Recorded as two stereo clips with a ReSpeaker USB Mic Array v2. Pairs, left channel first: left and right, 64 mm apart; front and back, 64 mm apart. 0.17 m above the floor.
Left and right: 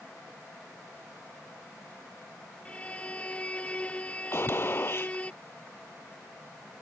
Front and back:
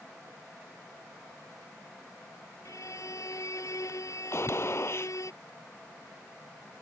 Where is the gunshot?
45° left.